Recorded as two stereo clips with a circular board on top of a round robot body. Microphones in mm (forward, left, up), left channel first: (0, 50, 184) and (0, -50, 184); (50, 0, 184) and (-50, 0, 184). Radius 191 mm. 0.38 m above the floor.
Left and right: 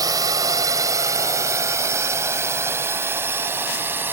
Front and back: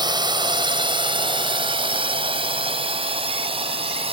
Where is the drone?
140° right; by 4.1 s 160° right.